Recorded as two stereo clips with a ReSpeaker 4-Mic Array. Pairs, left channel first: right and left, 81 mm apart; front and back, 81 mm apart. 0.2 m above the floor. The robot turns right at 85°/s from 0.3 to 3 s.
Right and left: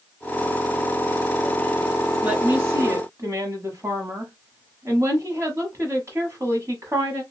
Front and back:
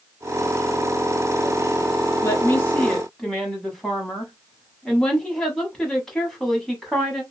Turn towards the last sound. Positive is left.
turn(degrees=80)